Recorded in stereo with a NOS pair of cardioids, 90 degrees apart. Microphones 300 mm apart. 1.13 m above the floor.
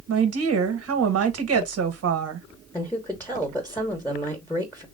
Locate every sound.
0.1 s a woman speaking: 55° right, 1.1 m
2.7 s a woman speaking: 5° left, 1.2 m